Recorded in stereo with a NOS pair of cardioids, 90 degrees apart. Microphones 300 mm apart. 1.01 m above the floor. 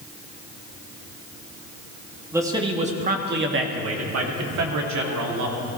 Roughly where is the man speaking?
Ahead.